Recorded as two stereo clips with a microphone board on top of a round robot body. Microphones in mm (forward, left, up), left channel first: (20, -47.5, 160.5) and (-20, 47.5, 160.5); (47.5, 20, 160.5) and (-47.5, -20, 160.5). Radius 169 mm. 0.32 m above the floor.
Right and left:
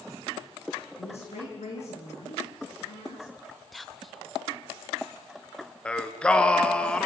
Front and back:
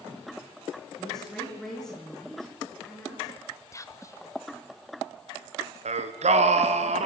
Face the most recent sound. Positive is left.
turn(degrees=-150)